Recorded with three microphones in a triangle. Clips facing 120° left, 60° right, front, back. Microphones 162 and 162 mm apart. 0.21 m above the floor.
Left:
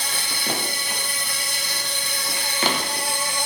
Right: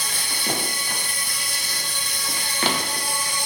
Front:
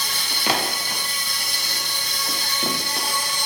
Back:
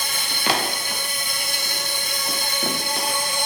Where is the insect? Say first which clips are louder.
Left 1 dB, back 1 dB; 145° left, 1.7 m.